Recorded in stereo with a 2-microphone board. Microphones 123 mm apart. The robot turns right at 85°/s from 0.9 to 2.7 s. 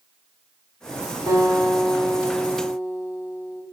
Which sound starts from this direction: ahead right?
A guitar, at 1.3 s.